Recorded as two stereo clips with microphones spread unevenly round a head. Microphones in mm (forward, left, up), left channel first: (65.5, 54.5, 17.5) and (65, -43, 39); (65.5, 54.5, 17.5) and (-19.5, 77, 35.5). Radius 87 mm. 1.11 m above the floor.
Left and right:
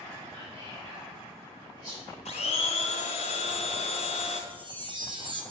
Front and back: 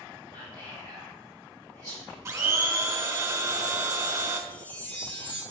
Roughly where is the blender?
Behind left.